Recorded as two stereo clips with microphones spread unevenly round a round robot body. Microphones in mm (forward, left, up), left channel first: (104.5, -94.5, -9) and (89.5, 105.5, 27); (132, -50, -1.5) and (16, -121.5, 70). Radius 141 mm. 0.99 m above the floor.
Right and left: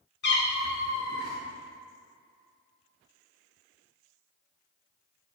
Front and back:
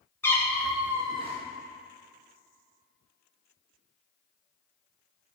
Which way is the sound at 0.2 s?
50° right.